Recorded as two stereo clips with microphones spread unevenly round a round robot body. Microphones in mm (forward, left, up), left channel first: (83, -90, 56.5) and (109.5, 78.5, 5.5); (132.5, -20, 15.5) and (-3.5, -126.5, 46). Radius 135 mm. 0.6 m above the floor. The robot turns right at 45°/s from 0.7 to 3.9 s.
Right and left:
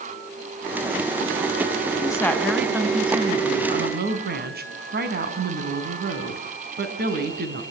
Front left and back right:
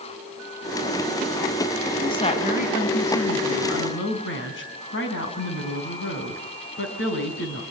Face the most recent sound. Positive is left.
turn(degrees=55)